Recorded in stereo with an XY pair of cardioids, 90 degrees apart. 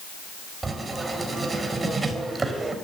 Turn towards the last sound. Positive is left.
turn(degrees=-30)